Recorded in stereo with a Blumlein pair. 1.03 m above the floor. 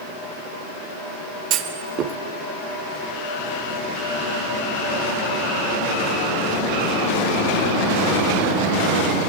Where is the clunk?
35° right, 0.5 m.